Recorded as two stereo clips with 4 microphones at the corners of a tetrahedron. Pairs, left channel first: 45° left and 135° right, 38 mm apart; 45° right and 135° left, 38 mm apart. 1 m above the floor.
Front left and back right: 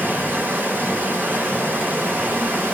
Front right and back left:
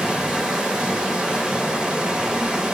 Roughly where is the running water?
Behind right.